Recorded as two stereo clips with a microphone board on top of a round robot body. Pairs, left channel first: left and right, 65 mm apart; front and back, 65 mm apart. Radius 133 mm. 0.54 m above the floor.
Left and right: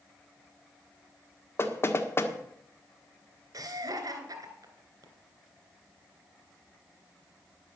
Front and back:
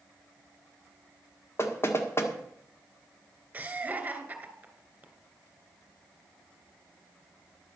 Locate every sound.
1.6 s knocking: 45° left, 1.6 m
3.5 s laughter: 115° right, 3 m